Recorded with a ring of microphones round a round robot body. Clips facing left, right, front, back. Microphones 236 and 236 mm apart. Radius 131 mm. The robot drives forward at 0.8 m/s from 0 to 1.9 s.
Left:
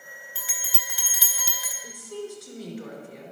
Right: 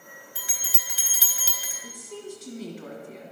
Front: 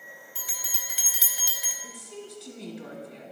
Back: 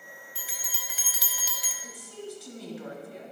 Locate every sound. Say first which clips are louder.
0.3 s a bell: left 1 dB, even; 20° right, 1.4 m; by 1.7 s 90° right, 0.9 m
1.8 s a woman speaking: left 3 dB, back 1 dB; 95° right, 1.6 m